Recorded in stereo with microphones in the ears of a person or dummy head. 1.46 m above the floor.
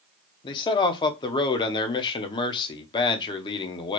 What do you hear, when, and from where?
0.4 s a man speaking: 25° left (ahead or behind), 0.7 m